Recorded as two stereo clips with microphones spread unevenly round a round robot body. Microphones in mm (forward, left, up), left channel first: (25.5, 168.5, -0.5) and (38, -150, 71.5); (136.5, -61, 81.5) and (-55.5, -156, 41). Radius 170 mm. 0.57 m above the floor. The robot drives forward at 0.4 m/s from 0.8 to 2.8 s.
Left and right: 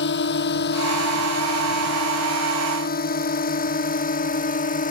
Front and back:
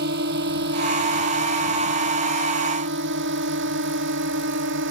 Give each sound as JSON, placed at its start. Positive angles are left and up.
{"t": 0.0, "sound": "a drone", "azimuth_deg": 150}